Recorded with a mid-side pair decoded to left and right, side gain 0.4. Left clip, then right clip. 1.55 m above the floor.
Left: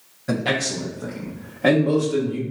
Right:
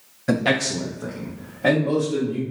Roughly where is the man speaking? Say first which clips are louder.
Right 2 dB; ahead right.